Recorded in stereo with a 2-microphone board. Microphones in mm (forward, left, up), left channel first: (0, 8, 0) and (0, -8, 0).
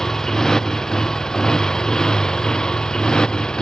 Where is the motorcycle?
35° left (ahead or behind); by 3.6 s 55° left (ahead or behind).